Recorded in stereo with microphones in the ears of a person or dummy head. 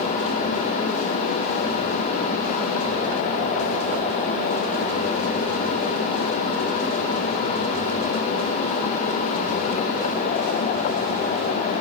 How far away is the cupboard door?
No cupboard door in this recording.